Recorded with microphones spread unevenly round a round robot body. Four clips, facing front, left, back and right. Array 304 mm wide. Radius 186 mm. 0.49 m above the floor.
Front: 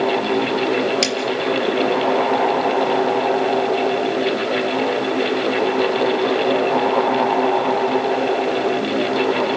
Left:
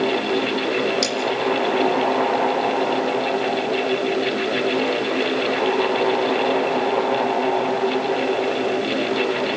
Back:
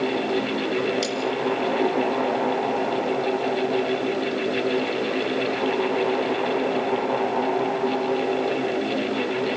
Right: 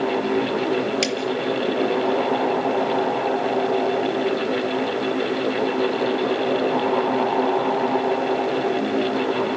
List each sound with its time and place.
1.0 s cutlery clinking: 30° right, 6 m